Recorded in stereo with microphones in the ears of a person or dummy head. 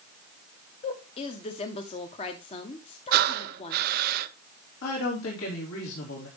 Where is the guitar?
I don't hear a guitar.